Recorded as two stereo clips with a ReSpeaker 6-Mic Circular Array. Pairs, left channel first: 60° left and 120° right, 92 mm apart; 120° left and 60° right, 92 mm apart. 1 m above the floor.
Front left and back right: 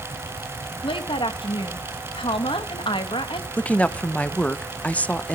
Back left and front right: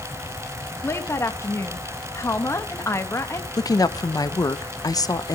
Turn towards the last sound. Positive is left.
turn(degrees=130)